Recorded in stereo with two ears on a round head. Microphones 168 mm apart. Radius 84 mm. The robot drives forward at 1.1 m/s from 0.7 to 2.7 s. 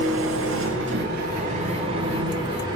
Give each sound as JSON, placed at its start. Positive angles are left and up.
{"t": 0.0, "sound": "an engine running", "side_deg": -75, "distance_m": 1.0}